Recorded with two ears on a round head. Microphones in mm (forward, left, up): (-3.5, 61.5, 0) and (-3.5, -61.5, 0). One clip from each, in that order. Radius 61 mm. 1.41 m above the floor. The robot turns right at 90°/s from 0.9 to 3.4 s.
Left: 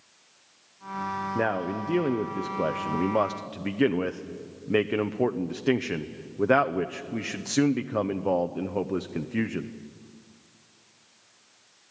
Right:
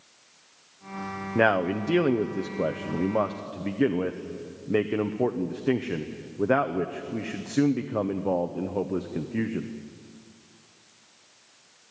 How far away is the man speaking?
About 0.7 m.